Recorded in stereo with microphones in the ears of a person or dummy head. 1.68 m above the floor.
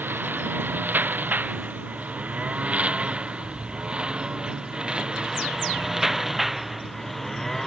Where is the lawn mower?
10° right (ahead or behind); by 7.7 s 5° left (ahead or behind).